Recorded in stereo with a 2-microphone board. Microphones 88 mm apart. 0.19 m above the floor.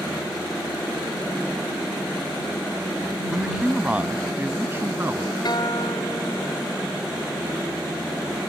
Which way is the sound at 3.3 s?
5° right (ahead or behind).